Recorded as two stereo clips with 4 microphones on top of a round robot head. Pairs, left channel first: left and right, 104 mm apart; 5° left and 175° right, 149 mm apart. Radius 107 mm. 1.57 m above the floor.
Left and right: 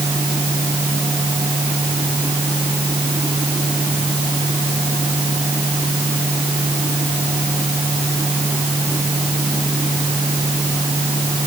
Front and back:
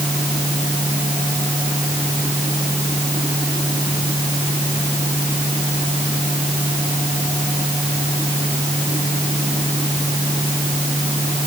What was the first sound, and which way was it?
Only background noise.